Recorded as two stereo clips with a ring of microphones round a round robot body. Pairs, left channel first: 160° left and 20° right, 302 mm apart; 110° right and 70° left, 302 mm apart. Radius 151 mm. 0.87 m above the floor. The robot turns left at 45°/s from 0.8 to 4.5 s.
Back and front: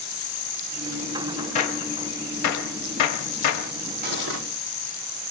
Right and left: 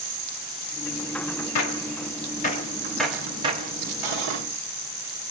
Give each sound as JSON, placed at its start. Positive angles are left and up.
{"t": 1.6, "sound": "a gunshot", "azimuth_deg": -135, "distance_m": 0.9}
{"t": 4.0, "sound": "cutlery clinking", "azimuth_deg": 40, "distance_m": 0.9}